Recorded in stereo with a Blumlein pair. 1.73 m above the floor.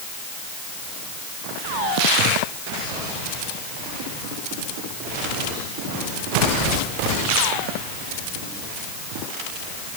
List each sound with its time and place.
Only background noise.